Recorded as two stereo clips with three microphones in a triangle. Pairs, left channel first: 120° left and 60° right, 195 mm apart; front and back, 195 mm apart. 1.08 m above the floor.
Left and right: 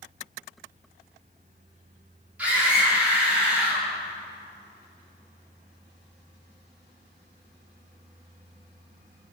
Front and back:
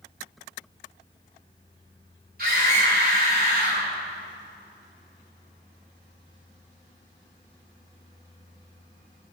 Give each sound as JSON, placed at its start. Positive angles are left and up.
{"t": 2.4, "sound": "a scream", "azimuth_deg": -140, "distance_m": 3.5}